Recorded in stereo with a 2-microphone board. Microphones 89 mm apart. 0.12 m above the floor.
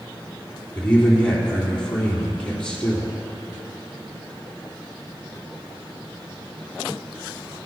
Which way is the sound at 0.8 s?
10° left (ahead or behind).